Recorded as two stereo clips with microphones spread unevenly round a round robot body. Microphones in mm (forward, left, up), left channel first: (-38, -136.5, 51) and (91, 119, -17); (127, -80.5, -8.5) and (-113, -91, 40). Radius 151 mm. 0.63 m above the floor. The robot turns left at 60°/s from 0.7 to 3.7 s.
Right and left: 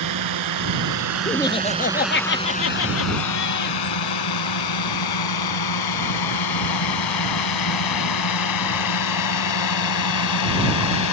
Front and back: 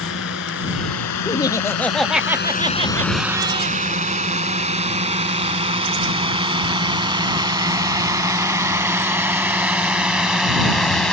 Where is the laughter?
20° right; by 3.8 s 165° right.